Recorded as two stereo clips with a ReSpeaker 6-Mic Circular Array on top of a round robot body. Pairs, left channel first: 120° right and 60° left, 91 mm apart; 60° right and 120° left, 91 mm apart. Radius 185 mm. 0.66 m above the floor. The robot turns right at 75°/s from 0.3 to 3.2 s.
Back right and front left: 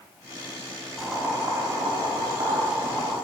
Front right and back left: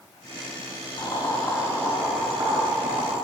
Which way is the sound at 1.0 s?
35° right.